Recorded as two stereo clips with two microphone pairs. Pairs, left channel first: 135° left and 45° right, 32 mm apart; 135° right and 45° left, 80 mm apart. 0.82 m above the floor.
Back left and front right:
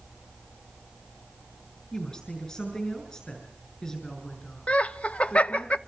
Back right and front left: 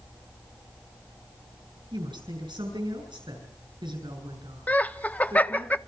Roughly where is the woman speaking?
Ahead left.